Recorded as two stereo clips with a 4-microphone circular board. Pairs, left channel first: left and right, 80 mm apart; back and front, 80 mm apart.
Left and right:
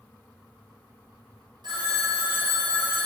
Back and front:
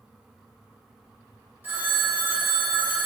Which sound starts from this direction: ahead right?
A phone ringing, at 1.6 s.